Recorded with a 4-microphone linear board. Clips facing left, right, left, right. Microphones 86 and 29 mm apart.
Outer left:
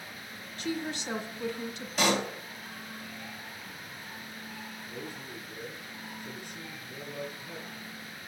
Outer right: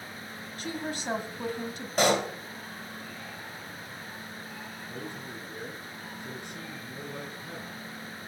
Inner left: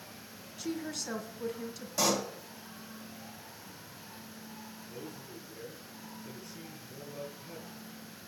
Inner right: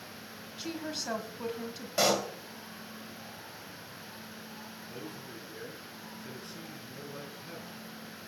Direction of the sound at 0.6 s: 45° right (ahead or behind).